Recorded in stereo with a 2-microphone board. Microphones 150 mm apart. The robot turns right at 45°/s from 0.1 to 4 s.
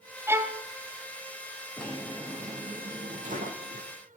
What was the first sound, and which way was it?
A violin, 15° right (ahead or behind).